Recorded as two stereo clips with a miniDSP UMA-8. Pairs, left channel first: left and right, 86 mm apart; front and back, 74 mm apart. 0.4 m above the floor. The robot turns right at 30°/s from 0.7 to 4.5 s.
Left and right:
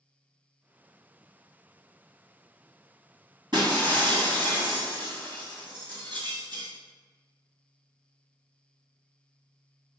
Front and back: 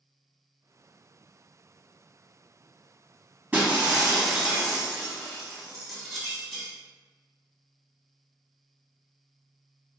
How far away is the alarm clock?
No alarm clock in this recording.